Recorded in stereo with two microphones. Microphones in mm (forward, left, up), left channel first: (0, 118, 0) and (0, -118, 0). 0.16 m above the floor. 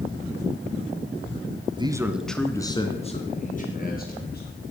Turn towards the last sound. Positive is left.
turn(degrees=45)  # may be behind; listen again after turning